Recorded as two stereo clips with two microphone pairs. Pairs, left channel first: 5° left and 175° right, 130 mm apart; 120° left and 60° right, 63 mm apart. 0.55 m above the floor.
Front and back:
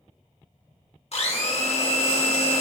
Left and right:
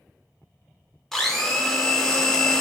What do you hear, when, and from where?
1.1 s a blender: 40° left, 0.8 m